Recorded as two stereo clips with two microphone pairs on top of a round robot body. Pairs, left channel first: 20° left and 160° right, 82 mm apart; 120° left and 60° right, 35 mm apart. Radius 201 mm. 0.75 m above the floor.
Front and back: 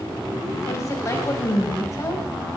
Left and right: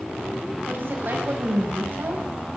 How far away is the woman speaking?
About 5.5 m.